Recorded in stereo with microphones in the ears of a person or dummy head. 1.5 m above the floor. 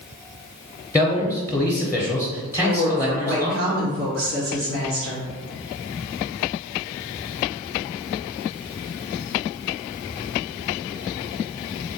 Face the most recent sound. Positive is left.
turn(degrees=-70)  # may be behind; listen again after turning